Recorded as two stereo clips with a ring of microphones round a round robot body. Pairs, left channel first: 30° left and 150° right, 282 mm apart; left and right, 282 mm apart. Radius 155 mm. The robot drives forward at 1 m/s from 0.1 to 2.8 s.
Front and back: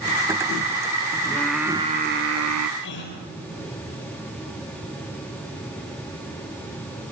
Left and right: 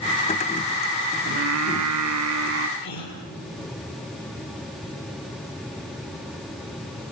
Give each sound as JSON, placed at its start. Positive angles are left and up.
{"t": 1.3, "sound": "singing", "azimuth_deg": -50, "distance_m": 1.1}
{"t": 2.8, "sound": "a gasp", "azimuth_deg": 80, "distance_m": 5.0}